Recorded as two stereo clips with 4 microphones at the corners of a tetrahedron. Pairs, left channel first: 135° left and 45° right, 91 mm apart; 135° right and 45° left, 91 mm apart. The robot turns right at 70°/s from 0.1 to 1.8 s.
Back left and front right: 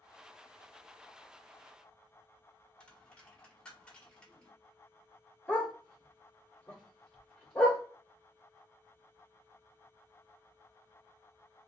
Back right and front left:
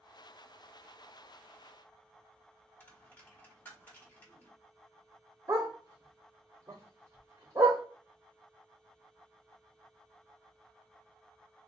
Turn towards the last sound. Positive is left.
turn(degrees=60)